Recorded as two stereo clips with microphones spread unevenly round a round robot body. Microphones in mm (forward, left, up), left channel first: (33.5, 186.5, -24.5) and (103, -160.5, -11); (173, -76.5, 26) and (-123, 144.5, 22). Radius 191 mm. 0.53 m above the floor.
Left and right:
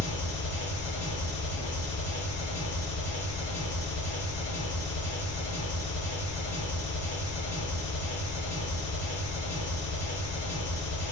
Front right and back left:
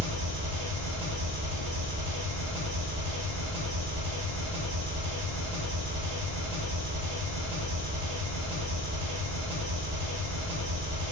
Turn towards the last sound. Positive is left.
turn(degrees=150)